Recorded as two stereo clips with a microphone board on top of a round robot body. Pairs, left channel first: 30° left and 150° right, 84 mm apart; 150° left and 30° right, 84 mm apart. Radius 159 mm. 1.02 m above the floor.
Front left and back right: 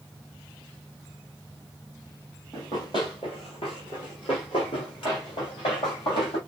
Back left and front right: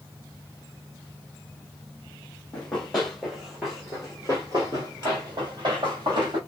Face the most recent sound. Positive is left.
turn(degrees=5)